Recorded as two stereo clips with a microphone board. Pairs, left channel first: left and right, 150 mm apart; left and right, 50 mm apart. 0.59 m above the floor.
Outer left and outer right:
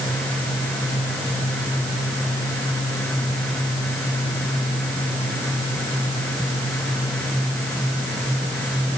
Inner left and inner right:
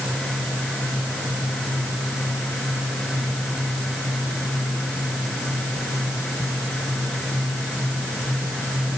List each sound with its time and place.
Only background noise.